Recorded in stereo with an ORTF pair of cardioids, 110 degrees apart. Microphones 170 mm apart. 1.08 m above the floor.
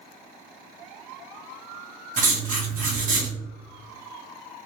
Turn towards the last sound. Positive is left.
turn(degrees=-55)